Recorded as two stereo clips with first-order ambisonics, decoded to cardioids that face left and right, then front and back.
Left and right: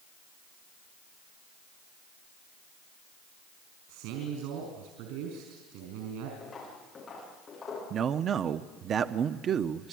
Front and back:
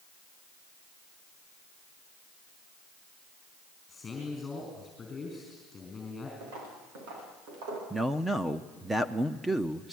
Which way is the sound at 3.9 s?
75° right.